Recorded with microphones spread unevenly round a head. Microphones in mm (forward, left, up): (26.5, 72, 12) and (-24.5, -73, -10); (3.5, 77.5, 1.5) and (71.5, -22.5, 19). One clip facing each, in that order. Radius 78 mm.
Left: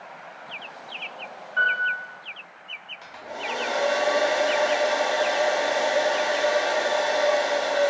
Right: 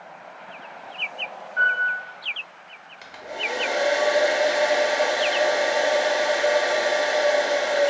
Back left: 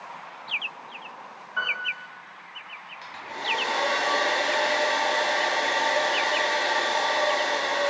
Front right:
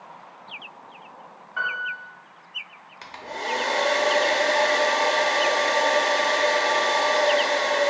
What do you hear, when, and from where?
1.6 s a piano: 35° left, 1.6 m
3.0 s a hair dryer: 35° right, 0.6 m